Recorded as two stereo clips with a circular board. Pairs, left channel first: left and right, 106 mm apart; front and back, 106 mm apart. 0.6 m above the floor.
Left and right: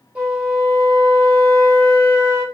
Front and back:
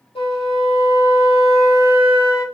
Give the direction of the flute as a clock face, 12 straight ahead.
12 o'clock.